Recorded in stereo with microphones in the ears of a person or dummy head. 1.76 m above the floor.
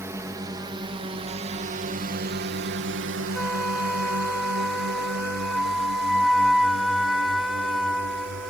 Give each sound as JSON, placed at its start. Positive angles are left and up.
{"t": 0.0, "sound": "a drone", "side_deg": -15}
{"t": 3.3, "sound": "a flute", "side_deg": 0}